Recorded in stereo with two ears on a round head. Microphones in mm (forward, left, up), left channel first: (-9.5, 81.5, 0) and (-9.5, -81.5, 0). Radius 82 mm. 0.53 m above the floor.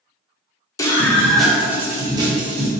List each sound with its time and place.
0.8 s a scream: 20° left (ahead or behind), 1.0 m; by 2.7 s 35° right (ahead or behind), 1.2 m